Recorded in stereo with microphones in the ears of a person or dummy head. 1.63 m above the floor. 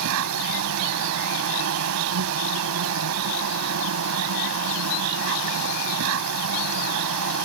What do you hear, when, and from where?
0.0 s an insect: 75° right (ahead or behind)